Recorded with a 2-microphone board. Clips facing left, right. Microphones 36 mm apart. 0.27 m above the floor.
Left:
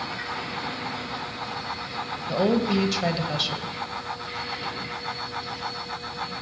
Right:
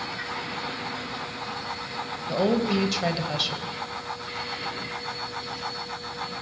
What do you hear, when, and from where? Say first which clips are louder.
2.3 s a woman speaking: left 1 dB; centre (ahead or behind), 1.1 m